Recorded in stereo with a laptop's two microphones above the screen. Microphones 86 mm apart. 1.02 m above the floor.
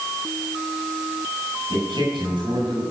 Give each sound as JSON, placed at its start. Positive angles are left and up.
{"t": 1.7, "sound": "a man speaking", "side_deg": -80, "distance_m": 7.0}